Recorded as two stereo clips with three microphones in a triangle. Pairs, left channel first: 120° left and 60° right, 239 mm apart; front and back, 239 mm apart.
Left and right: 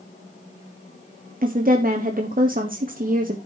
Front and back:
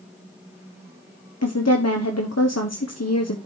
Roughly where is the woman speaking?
Ahead.